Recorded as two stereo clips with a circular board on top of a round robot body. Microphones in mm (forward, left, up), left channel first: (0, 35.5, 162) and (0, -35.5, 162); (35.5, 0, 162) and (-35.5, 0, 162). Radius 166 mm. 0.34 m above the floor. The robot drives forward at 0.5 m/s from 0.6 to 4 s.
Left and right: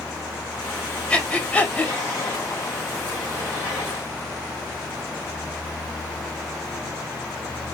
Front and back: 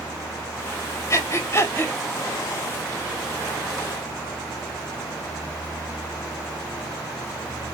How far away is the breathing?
About 1.9 m.